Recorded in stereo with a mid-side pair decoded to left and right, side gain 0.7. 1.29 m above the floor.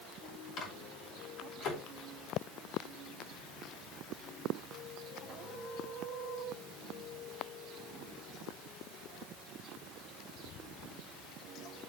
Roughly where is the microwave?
Ahead left.